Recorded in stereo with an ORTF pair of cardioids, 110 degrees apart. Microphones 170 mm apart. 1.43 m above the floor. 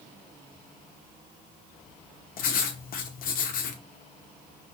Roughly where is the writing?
Ahead left.